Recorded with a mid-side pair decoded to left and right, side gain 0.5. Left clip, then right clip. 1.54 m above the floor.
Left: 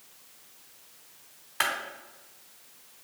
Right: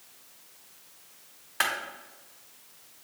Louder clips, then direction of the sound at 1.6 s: Even; 5° right.